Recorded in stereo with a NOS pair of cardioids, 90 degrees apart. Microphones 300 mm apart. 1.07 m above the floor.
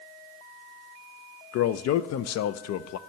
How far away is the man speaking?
About 0.5 m.